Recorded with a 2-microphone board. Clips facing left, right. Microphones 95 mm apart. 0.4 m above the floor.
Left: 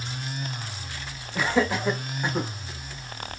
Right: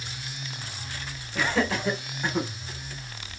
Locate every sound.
1.4 s laughter: 10° left (ahead or behind), 1.8 m; by 2.5 s 20° left (ahead or behind), 1.1 m